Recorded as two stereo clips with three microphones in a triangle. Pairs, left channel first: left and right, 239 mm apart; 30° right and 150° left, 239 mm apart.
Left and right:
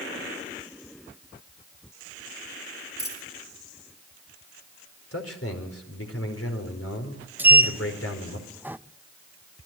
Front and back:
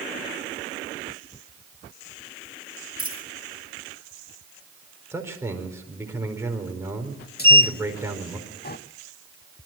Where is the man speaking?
70° left, 4.5 m.